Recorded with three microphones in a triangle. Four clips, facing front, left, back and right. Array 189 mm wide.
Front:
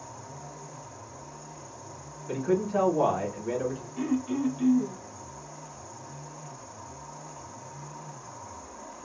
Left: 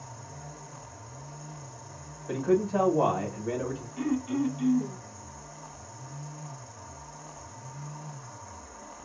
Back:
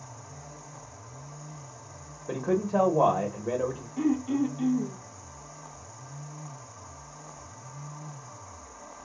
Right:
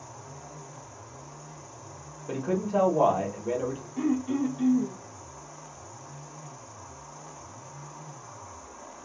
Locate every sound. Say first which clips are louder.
0.0 s an insect: even, front 4 dB; 25° right, 0.7 m
2.3 s a man speaking: left 2 dB, even; 155° right, 1.2 m
4.0 s throat clearing: right 2 dB, back 3 dB; 120° right, 0.7 m